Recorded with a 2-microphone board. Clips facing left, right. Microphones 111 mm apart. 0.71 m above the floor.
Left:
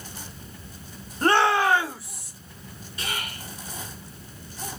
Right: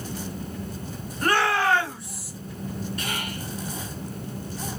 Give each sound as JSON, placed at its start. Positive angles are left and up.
{"t": 1.2, "sound": "a shout", "side_deg": 30, "distance_m": 0.9}
{"t": 3.0, "sound": "whispering", "side_deg": -55, "distance_m": 1.8}